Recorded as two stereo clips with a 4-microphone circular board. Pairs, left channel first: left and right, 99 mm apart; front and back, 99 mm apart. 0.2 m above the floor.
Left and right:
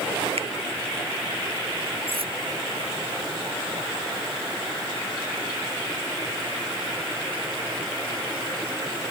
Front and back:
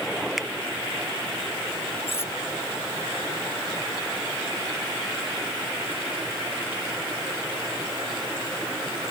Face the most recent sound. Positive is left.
turn(degrees=-65)